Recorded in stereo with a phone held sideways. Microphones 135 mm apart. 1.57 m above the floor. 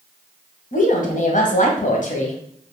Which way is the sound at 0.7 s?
60° left (ahead or behind).